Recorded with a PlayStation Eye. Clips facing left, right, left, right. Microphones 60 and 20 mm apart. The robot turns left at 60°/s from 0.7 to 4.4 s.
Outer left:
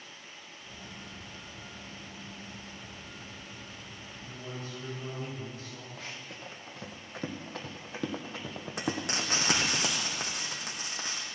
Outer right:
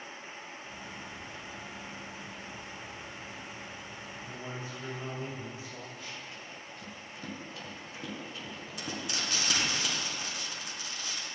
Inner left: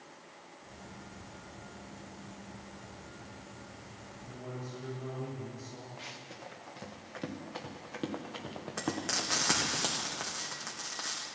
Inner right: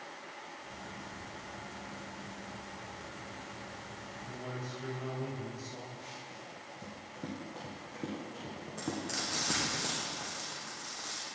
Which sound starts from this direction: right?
A man speaking, at 4.3 s.